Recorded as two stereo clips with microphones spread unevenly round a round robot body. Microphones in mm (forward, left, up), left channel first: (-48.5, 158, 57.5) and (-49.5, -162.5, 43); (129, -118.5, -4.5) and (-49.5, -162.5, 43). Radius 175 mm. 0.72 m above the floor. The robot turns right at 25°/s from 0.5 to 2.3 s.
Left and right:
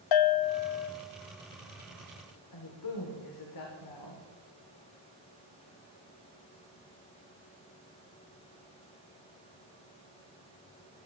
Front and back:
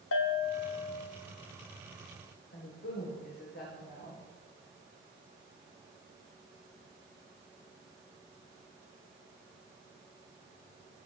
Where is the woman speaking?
60° left, 1.9 m.